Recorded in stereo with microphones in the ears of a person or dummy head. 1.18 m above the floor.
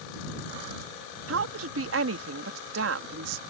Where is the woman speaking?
70° right (ahead or behind).